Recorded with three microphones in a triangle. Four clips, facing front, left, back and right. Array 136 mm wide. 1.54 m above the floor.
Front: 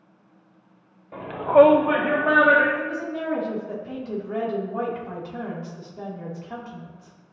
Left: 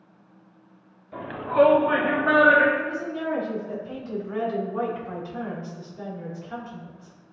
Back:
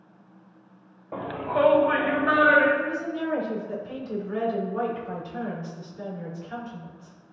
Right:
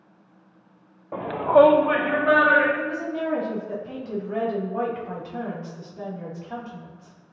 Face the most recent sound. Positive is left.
turn(degrees=-30)